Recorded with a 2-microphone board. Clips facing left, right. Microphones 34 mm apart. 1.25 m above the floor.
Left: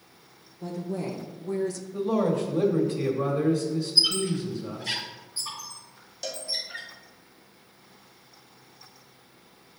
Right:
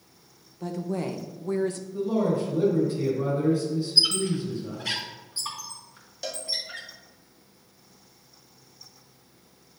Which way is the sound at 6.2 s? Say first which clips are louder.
Right 1 dB; 10° right (ahead or behind).